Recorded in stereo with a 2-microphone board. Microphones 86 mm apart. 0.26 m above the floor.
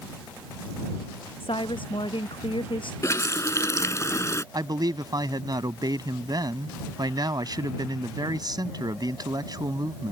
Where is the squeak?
I don't hear a squeak.